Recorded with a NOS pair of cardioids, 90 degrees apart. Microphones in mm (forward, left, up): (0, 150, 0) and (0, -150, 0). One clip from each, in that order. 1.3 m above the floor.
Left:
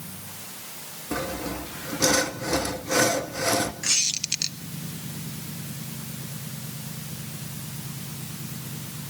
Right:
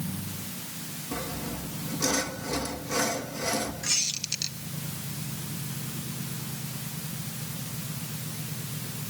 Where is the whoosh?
I don't hear a whoosh.